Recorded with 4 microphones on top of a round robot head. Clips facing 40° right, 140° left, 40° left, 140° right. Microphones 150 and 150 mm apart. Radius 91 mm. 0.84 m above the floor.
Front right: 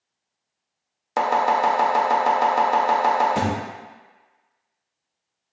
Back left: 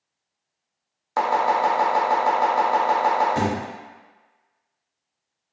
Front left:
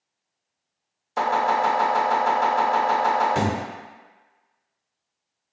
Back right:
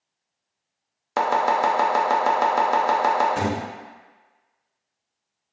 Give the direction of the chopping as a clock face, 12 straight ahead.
4 o'clock.